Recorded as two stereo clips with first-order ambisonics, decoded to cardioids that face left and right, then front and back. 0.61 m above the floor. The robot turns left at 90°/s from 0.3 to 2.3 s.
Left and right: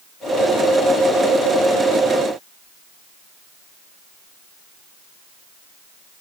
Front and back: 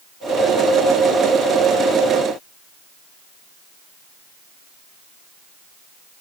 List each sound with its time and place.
Only background noise.